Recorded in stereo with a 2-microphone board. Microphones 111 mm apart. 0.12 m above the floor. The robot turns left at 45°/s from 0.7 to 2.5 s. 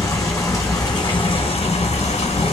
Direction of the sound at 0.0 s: 150° left.